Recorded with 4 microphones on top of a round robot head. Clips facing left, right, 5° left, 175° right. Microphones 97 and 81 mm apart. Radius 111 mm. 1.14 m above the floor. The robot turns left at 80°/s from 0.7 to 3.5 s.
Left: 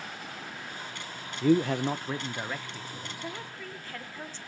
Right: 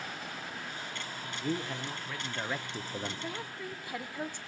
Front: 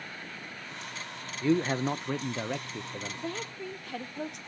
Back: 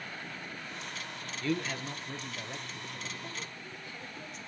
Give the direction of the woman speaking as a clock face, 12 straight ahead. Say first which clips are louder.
Even, front 7 dB; 12 o'clock.